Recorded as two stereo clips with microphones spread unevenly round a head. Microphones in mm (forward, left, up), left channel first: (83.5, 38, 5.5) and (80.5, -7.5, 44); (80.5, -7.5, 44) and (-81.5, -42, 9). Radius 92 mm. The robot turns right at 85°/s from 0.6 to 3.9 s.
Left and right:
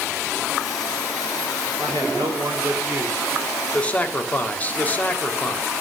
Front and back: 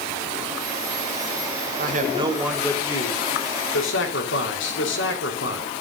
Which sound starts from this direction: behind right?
A man speaking, at 1.8 s.